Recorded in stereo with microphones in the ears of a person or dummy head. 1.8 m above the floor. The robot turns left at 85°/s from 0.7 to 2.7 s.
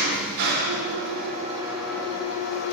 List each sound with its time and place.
0.0 s an engine running: 80° right, 0.9 m; by 2.7 s 110° left, 0.9 m